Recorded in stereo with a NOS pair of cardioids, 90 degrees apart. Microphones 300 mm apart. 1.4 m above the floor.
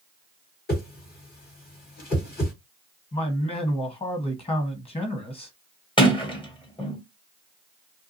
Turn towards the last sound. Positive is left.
turn(degrees=15)